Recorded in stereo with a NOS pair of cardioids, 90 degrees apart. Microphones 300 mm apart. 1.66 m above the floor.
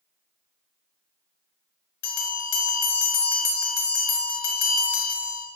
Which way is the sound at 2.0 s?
65° left.